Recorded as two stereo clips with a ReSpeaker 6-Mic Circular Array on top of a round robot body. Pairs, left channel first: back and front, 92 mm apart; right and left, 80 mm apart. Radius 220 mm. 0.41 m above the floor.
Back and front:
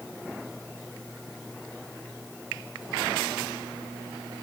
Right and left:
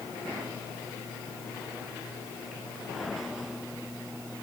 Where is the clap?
No clap in this recording.